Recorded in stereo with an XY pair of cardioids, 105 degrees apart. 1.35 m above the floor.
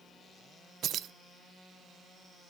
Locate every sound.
0.8 s keys jangling: 65° right, 0.5 m